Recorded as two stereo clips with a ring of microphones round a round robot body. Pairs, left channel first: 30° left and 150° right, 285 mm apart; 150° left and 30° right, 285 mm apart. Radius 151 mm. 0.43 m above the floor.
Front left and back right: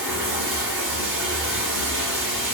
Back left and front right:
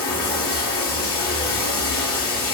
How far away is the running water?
About 1.7 m.